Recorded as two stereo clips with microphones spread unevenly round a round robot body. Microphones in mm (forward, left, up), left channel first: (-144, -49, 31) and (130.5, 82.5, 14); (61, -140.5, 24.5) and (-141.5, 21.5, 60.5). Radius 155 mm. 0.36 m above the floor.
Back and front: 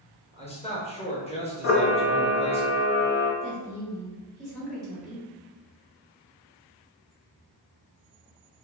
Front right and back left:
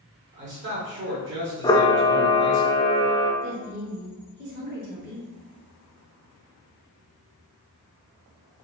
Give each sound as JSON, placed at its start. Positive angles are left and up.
{"t": 0.3, "sound": "a man speaking", "azimuth_deg": 145, "distance_m": 1.2}
{"t": 1.6, "sound": "a camera shutter", "azimuth_deg": -110, "distance_m": 0.6}
{"t": 3.4, "sound": "a woman speaking", "azimuth_deg": 115, "distance_m": 1.3}